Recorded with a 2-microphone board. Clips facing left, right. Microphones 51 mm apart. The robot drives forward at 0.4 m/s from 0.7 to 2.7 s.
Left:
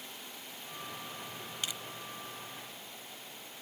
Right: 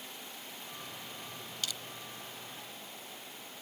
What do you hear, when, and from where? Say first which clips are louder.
1.6 s crushing: even; 20° left (ahead or behind)